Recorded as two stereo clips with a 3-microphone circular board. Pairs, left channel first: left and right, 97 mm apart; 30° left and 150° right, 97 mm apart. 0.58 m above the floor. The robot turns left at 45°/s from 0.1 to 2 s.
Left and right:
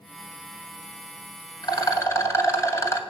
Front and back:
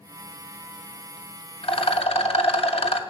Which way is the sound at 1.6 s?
50° left.